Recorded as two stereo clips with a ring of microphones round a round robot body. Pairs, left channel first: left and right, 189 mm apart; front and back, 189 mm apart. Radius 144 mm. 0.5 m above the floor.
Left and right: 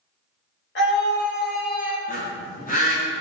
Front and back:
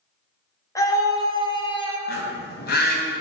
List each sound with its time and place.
0.8 s a scream: 70° left, 2.5 m; by 2.0 s 55° left, 2 m
2.1 s a bird: 35° left, 2.5 m